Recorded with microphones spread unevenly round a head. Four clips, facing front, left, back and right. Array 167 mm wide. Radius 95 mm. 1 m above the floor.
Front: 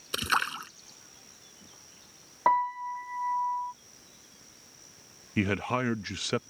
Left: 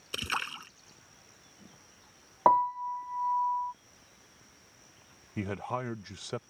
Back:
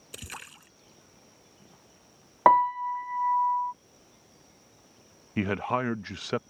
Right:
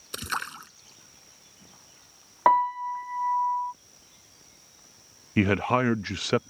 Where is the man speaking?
75° right.